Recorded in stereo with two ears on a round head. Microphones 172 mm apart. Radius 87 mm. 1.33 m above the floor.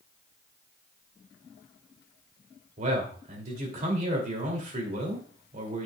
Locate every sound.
2.8 s a man speaking: 40° right (ahead or behind), 2.5 m